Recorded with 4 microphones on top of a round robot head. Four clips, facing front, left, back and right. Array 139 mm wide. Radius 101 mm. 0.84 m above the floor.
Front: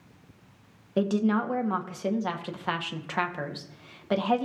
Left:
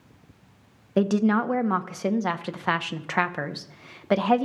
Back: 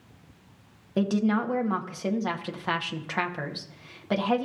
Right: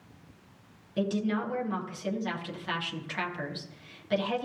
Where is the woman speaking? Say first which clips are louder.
Left 8 dB, even; 90° left, 0.9 m.